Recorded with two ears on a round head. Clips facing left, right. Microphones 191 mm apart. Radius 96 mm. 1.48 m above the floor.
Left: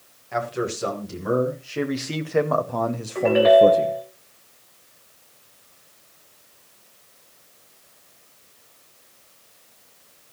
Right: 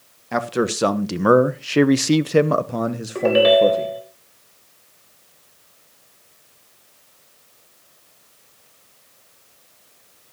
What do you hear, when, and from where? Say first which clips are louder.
0.3 s a man speaking: right 5 dB; 65° right (ahead or behind), 1.2 m; by 4.0 s 10° left (ahead or behind), 1.1 m
3.1 s a ringtone: even; 50° right (ahead or behind), 3.5 m